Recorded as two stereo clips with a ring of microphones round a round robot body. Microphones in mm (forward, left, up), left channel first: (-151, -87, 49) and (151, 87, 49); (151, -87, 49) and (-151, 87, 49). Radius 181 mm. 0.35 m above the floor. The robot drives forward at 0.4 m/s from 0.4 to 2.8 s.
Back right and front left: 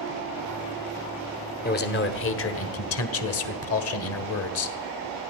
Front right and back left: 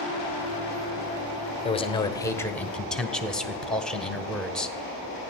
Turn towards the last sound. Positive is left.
turn(degrees=-120)